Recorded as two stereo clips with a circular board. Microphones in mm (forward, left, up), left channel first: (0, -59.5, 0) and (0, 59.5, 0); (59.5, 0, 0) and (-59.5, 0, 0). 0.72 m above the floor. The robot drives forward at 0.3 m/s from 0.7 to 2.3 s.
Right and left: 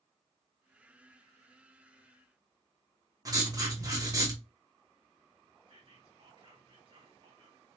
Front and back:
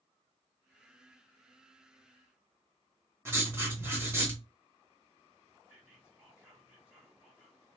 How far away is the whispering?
About 1.7 m.